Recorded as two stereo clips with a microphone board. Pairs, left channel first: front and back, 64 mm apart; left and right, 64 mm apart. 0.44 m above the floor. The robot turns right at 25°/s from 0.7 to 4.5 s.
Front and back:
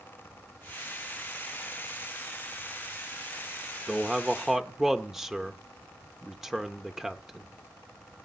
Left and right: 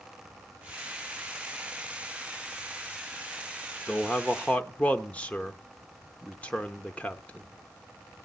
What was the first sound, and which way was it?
A man speaking, 95° left.